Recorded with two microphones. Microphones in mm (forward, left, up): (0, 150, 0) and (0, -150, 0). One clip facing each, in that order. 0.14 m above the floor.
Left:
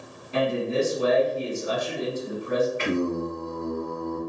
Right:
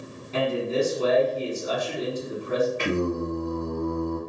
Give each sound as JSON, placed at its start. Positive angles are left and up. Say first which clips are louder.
{"t": 0.3, "sound": "a man speaking", "louder": "even", "side_deg": 15, "distance_m": 1.2}
{"t": 2.8, "sound": "singing", "louder": "even", "side_deg": -40, "distance_m": 1.4}